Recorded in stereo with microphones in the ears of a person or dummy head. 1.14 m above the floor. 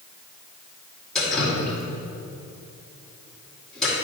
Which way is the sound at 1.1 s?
5° left (ahead or behind).